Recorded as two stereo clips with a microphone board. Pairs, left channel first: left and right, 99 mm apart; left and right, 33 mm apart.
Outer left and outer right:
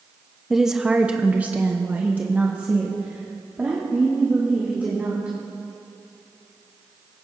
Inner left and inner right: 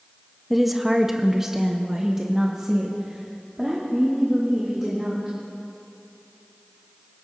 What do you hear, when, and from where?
0.5 s a woman speaking: centre (ahead or behind), 0.8 m; by 5.3 s 20° right (ahead or behind), 2.5 m